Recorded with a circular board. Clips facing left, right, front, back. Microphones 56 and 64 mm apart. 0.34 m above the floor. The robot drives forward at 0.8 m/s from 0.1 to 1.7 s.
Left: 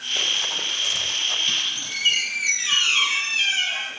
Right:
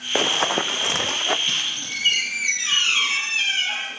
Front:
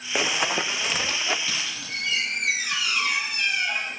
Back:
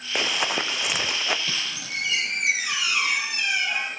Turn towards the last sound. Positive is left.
turn(degrees=-175)